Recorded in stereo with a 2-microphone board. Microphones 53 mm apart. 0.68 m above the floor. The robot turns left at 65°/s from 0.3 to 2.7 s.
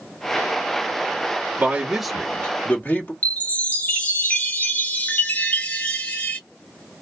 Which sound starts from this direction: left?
A chime, at 3.2 s.